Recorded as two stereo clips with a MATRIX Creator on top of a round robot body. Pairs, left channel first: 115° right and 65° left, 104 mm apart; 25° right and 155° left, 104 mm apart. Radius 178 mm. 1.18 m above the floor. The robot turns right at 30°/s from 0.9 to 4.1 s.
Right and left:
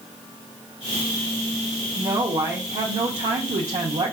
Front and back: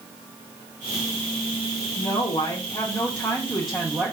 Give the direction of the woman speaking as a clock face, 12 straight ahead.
11 o'clock.